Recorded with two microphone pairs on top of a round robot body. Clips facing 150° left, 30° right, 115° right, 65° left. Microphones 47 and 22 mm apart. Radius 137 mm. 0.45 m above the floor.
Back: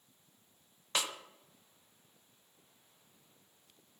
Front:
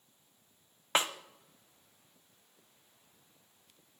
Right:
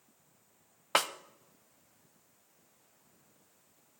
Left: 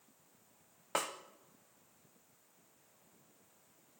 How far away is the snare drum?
About 0.7 m.